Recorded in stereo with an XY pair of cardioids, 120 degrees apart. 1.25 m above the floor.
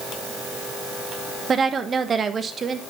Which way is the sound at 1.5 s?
35° right.